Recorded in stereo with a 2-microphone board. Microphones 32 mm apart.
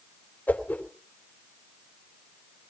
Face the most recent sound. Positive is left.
turn(degrees=75)  # may be behind; listen again after turning